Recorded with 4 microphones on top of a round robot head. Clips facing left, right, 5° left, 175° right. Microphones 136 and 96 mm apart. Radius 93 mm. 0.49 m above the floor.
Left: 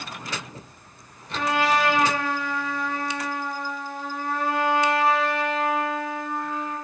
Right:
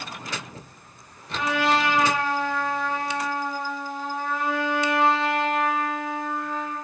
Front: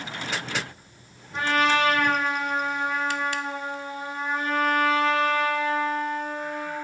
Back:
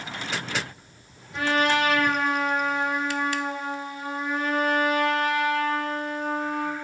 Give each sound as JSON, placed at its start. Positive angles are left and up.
{"t": 1.3, "sound": "a trumpet", "azimuth_deg": 50, "distance_m": 1.4}